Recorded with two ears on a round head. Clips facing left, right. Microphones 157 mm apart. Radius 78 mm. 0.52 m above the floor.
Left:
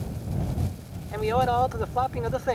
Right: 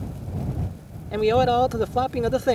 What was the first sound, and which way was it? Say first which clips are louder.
A man speaking: right 5 dB; 40° right (ahead or behind).